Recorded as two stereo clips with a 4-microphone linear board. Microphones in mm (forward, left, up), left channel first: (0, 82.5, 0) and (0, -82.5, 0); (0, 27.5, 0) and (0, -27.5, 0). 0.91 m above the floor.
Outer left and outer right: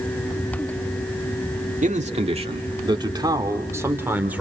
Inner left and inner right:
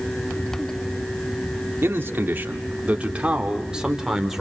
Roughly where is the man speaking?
Right.